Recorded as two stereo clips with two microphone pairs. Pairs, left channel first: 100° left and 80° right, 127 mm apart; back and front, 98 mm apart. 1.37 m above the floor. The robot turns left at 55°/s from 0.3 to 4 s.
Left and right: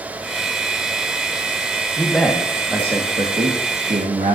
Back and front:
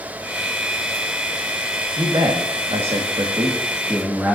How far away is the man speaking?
About 1.7 m.